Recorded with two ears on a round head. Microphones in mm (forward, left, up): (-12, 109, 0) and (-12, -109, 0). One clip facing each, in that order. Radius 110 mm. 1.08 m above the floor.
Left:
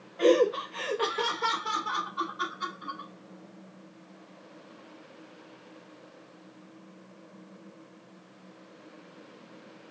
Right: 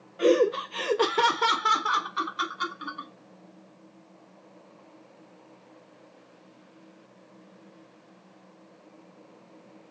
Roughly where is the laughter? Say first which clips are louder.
Right 1 dB; centre.